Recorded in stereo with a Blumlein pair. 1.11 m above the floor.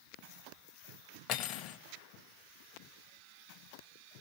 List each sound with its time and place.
1.3 s cutlery clinking: 35° left, 0.6 m